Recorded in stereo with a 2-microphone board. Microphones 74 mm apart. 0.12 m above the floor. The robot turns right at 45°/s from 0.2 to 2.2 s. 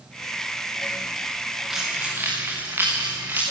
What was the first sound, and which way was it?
Keys jangling, 5° right (ahead or behind).